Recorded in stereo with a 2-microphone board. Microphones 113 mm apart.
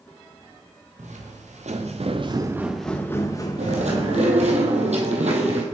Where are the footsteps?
90° right, 2 m; by 4.6 s 45° left (ahead or behind), 2.5 m.